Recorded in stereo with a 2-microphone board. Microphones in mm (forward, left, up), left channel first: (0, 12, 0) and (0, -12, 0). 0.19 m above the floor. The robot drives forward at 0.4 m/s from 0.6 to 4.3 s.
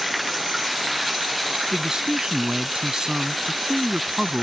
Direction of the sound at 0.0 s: Centre (ahead or behind).